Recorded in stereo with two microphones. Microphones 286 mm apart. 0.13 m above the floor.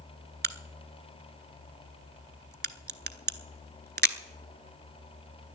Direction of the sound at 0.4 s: 35° right (ahead or behind).